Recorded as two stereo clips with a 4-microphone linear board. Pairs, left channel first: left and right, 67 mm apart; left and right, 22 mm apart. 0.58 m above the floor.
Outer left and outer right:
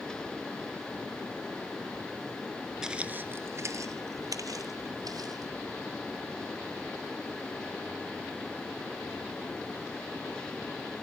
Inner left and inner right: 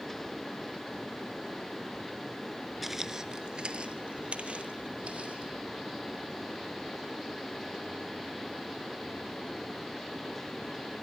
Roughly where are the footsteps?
Centre.